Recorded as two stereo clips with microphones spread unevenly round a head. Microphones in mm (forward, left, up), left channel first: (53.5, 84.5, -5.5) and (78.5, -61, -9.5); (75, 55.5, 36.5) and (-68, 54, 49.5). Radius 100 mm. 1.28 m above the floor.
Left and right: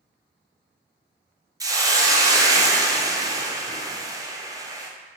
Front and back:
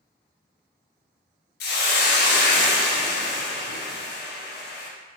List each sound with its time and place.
1.6 s a hiss: 10° right, 0.5 m